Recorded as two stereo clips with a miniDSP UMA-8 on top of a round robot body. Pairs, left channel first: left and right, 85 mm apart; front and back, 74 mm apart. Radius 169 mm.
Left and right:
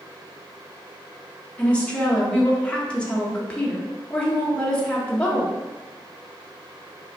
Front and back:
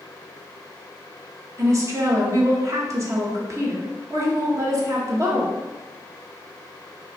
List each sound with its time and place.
1.6 s a woman speaking: 160° left, 1.2 m